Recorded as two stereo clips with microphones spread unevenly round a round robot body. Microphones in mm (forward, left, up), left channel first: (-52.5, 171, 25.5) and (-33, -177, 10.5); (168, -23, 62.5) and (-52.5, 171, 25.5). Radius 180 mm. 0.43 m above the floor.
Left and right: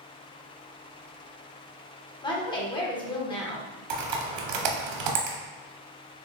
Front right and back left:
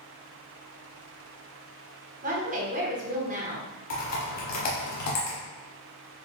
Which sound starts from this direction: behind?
A woman speaking, at 2.2 s.